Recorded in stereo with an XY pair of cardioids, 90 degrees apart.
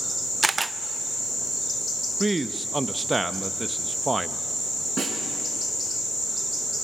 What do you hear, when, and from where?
0.4 s a camera shutter: 25° right, 0.6 m
2.2 s a man speaking: 20° right, 0.8 m
5.0 s a snare drum: 60° right, 6 m